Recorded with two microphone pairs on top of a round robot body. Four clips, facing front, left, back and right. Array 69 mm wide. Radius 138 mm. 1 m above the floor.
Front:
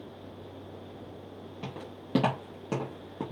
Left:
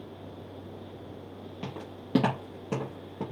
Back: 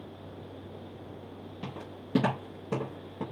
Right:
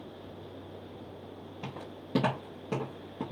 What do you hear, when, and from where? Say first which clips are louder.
1.6 s footsteps: left 2 dB, even; 65° left, 1.1 m; by 3.2 s 15° right, 1.2 m